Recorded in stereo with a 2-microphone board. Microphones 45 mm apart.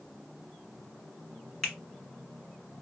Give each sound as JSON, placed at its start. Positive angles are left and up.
{"t": 1.6, "sound": "a finger snap", "side_deg": 5, "distance_m": 1.8}